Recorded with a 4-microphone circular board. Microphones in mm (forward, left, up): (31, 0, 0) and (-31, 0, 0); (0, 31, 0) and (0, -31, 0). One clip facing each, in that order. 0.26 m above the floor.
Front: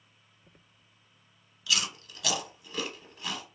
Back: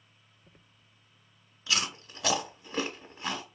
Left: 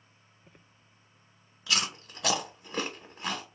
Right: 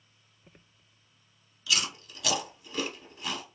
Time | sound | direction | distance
1.7 | chewing | 125° left | 0.5 m